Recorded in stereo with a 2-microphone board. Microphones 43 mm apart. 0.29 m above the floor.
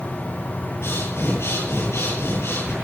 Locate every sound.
0.8 s breathing: 70° left (ahead or behind), 8 m